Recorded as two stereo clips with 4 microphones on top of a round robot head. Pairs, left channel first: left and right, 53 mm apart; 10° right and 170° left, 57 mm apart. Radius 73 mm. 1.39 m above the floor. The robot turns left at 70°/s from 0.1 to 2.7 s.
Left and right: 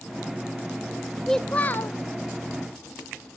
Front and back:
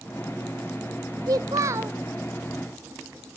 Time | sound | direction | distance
1.3 | a child speaking | 170° left | 0.5 m